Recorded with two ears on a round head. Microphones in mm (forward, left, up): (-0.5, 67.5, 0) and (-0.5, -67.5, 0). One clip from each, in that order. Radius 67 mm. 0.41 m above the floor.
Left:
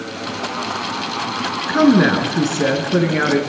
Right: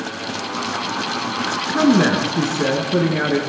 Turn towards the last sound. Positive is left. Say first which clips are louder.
# left 3 dB
turn(degrees=15)  # may be behind; listen again after turning